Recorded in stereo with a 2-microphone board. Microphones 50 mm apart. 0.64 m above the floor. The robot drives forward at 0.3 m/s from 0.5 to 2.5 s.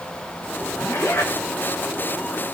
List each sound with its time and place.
0.8 s a zipper: 60° left (ahead or behind), 9 m; by 1.3 s 65° left (ahead or behind), 9 m